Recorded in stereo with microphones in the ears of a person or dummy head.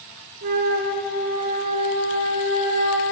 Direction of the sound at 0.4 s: 50° right (ahead or behind).